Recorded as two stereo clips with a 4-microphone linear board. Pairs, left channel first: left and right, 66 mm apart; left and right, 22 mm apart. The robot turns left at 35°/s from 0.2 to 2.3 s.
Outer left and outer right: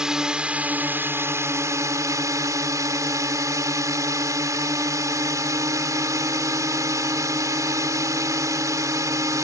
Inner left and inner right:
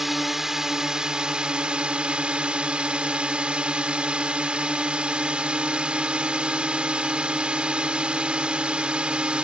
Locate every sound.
0.0 s a drone: 15° right; by 9.4 s 85° right